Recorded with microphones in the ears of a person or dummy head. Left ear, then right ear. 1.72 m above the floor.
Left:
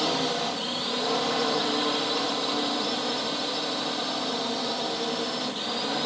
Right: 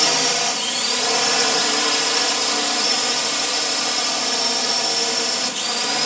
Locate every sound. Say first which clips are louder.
0.0 s a drone: right 8 dB; 60° right (ahead or behind)